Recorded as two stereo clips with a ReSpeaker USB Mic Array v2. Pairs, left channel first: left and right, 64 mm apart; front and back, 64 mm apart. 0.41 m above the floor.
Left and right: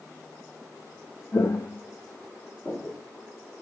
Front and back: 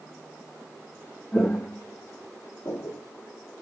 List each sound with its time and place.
1.3 s footsteps: 65° left, 0.9 m; by 3.0 s 15° left, 1.7 m